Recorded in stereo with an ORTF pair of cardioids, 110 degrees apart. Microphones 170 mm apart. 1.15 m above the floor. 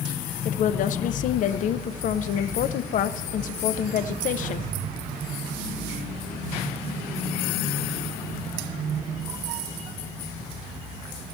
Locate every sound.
0.5 s a woman speaking: 50° left, 0.5 m